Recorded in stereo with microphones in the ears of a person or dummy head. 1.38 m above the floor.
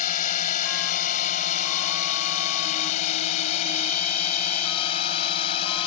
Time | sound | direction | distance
0.0 | a drone | 50° left (ahead or behind) | ?